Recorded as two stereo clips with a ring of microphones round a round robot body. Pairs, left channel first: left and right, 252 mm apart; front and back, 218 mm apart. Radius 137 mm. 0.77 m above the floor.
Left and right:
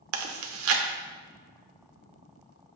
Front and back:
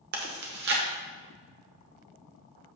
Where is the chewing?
125° right, 1.0 m.